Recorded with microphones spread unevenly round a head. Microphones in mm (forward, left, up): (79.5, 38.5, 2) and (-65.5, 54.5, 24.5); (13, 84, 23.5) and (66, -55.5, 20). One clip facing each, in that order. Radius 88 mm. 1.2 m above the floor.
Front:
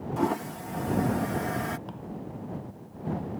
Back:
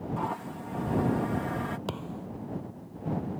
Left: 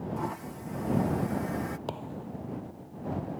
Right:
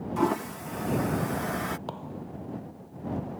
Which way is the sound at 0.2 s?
60° right.